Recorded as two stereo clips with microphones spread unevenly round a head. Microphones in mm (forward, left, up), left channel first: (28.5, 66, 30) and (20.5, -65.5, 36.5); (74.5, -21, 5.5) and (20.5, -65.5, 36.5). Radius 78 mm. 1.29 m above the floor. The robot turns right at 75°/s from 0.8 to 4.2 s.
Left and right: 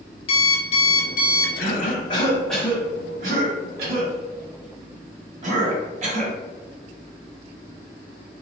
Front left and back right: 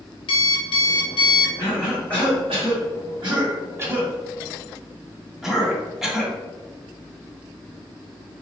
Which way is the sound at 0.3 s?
40° left.